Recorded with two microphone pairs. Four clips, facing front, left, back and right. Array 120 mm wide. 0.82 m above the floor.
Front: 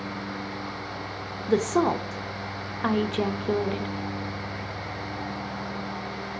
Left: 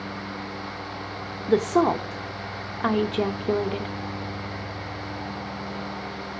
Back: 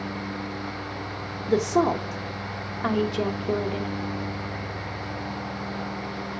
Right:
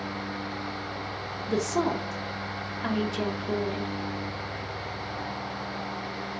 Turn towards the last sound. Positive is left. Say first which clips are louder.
# left 7 dB, back 1 dB
turn(degrees=85)